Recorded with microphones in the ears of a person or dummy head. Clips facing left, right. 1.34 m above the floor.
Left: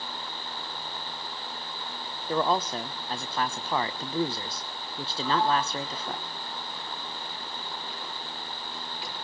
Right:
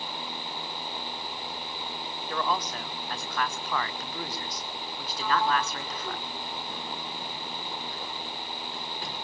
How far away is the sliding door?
About 5 m.